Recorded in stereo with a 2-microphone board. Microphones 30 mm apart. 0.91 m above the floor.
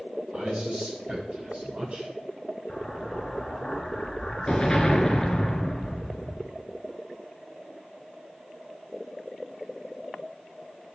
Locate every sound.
0.3 s a man speaking: 40° right (ahead or behind), 7 m
2.7 s an explosion: 20° left (ahead or behind), 2 m